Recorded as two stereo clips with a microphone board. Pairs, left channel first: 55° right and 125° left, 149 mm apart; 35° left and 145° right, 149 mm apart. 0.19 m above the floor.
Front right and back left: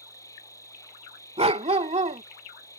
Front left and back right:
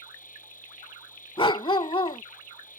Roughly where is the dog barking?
Left.